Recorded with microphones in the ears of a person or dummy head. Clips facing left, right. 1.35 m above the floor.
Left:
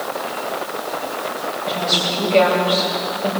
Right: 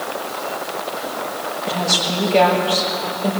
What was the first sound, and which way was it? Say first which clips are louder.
A woman speaking: even; 10° right (ahead or behind).